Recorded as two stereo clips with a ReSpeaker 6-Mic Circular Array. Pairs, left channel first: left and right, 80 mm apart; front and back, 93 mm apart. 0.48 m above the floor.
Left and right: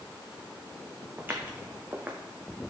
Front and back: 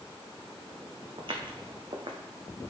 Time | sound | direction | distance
1.2 | footsteps | 155° right | 1.4 m